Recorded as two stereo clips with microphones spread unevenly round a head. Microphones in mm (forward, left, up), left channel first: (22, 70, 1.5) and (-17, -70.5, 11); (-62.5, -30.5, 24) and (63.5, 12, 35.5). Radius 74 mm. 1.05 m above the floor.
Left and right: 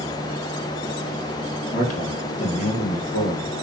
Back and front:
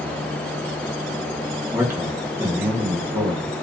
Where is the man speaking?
95° left, 0.9 m.